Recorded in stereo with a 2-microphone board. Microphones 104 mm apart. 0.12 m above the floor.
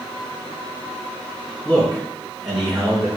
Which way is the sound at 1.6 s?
15° left (ahead or behind).